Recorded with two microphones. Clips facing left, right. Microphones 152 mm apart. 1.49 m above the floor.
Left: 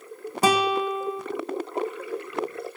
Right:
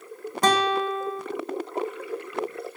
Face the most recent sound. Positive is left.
turn(degrees=5)  # may be behind; listen again after turning